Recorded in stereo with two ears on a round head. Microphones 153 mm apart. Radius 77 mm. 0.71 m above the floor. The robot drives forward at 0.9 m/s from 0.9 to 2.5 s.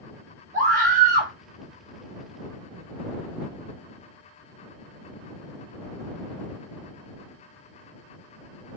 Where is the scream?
45° right (ahead or behind), 1.5 m.